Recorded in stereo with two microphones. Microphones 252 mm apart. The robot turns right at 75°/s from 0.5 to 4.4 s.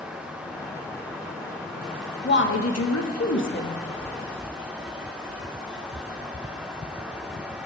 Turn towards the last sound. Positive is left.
turn(degrees=-160)